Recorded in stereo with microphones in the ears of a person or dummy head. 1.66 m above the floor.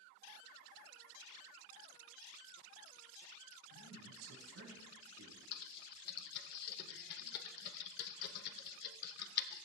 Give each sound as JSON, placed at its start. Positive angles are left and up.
{"t": 3.7, "sound": "a man speaking", "side_deg": -80, "distance_m": 4.0}
{"t": 5.5, "sound": "typing on a keyboard", "side_deg": 55, "distance_m": 1.0}